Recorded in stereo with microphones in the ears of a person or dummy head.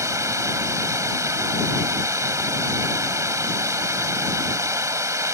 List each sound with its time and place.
0.0 s running water: 20° right (ahead or behind)